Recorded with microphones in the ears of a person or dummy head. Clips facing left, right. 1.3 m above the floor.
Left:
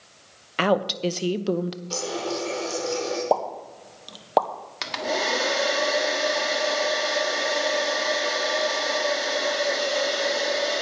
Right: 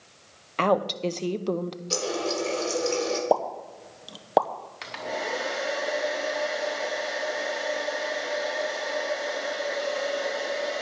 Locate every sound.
0.6 s a woman speaking: 15° left (ahead or behind), 0.7 m
1.9 s a running tap: 25° right (ahead or behind), 3 m
3.3 s a pop: centre (ahead or behind), 0.8 m
4.8 s a hair dryer: 65° left (ahead or behind), 1.3 m